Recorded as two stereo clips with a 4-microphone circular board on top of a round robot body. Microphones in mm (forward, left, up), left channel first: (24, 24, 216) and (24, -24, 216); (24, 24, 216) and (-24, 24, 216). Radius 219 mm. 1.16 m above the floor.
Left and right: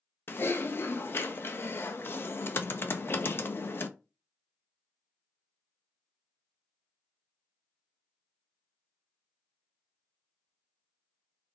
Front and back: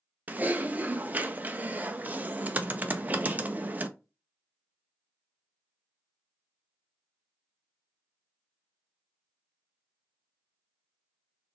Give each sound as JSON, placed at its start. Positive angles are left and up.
{"t": 0.3, "sound": "typing on a keyboard", "azimuth_deg": 125, "distance_m": 0.9}